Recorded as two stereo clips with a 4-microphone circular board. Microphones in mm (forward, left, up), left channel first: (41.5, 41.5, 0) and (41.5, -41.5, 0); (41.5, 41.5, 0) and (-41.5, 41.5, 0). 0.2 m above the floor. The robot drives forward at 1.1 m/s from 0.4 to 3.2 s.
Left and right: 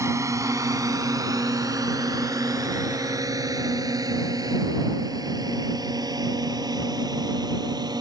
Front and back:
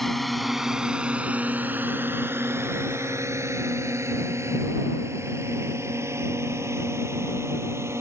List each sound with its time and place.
0.0 s a drone: 85° right; by 8.0 s 125° right